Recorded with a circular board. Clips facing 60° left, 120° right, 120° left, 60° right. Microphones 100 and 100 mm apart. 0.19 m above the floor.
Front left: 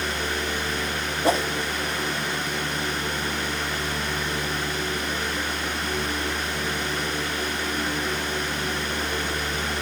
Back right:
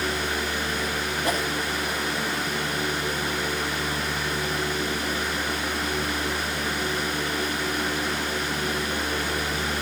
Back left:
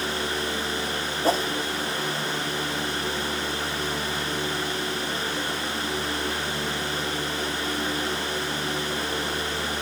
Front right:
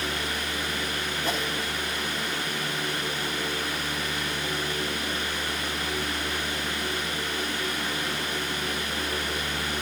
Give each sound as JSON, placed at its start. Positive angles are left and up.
{"t": 1.2, "sound": "a whoosh", "azimuth_deg": 95, "distance_m": 0.9}